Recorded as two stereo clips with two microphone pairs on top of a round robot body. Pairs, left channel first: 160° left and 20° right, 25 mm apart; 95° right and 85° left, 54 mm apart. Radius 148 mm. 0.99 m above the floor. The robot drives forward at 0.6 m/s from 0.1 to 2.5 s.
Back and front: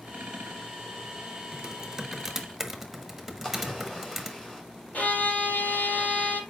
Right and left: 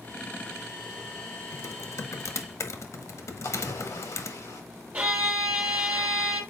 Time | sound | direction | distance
1.5 | typing on a keyboard | 80° right | 1.5 m
3.4 | a splash | 125° right | 4 m
4.9 | a violin | 145° left | 3.5 m